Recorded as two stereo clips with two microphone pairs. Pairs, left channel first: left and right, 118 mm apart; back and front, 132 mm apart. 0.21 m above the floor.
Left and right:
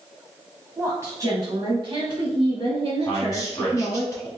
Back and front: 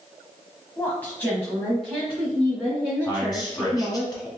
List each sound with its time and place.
0.8 s a woman speaking: 130° right, 1.1 m; by 4.0 s 80° right, 2 m
3.0 s a man speaking: 135° left, 1.4 m